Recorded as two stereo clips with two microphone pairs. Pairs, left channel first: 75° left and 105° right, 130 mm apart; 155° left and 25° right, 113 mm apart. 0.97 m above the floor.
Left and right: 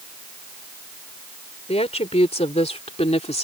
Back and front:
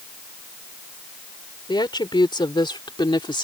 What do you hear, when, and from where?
1.7 s a woman speaking: 110° left